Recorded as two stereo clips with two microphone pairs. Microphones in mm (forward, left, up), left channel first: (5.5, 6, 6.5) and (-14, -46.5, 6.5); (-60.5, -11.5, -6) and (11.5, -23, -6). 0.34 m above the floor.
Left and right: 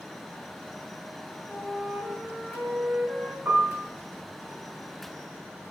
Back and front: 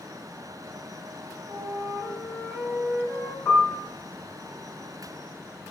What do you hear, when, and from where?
1.5 s a flute: 15° right, 1.4 m
3.5 s a piano: 145° right, 1.3 m